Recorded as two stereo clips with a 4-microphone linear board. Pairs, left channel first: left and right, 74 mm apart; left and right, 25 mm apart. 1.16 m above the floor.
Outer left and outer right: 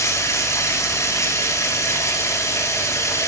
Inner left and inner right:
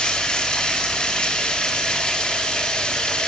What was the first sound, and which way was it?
Running water, 40° left (ahead or behind).